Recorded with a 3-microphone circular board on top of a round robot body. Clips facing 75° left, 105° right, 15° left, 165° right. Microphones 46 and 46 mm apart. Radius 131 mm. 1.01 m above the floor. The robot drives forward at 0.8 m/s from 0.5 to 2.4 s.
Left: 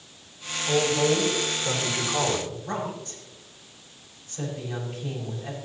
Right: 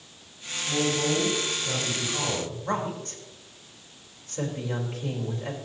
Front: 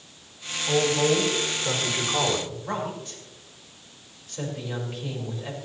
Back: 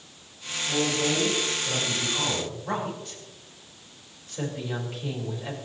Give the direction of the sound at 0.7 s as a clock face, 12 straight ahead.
11 o'clock.